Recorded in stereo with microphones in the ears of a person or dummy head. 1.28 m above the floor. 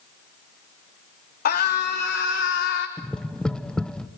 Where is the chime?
I don't hear a chime.